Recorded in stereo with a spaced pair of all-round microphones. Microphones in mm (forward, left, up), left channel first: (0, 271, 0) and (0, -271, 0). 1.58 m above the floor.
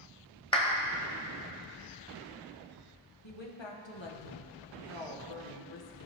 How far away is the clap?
About 1.0 m.